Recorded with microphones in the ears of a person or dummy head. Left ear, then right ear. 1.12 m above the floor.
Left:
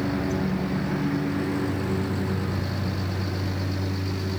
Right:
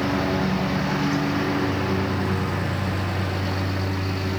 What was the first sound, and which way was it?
A lawn mower, 30° right (ahead or behind).